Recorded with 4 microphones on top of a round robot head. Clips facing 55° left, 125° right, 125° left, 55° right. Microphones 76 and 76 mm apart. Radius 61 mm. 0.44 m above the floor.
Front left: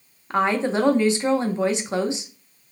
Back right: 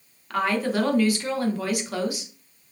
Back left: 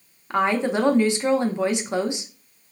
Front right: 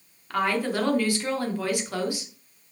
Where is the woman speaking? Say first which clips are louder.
Front left 3 dB, back left 4 dB; 85° left, 0.8 m.